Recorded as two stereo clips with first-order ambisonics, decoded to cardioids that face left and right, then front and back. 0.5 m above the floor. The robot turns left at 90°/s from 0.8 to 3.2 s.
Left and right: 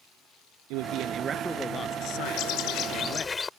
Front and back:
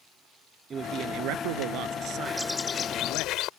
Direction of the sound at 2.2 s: 110° left.